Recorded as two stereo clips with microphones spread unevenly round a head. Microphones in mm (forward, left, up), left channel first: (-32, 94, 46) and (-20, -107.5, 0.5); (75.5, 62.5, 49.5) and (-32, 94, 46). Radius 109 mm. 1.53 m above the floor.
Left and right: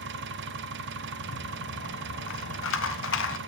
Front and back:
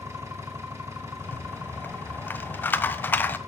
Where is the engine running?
120° right, 1.1 m.